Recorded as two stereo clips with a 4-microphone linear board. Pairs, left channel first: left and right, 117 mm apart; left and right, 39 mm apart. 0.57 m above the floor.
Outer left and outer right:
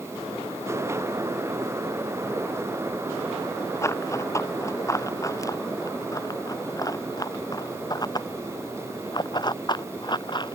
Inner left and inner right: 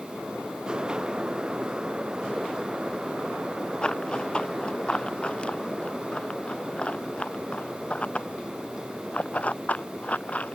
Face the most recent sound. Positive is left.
turn(degrees=45)  # may be behind; listen again after turning